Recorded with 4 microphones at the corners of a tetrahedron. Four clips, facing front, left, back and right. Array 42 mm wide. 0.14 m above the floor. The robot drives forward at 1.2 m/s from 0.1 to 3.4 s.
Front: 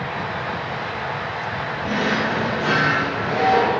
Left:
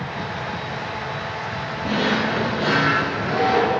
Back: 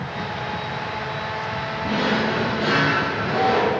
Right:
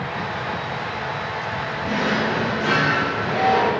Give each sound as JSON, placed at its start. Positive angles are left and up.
{"t": 1.8, "sound": "a drawer", "azimuth_deg": 110, "distance_m": 2.5}